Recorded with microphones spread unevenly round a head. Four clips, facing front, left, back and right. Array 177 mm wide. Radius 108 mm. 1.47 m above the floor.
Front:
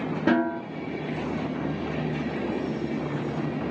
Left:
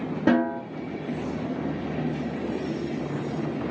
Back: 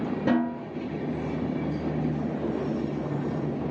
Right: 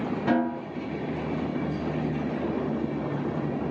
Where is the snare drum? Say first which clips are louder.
Left 4 dB, front 3 dB; 110° left, 1.8 m.